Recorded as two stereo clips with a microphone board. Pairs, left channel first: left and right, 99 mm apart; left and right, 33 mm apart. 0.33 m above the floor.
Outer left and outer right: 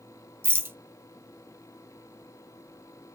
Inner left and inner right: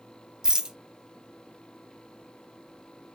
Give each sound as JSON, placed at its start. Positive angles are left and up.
{"t": 0.4, "sound": "a rattle", "side_deg": -25, "distance_m": 0.7}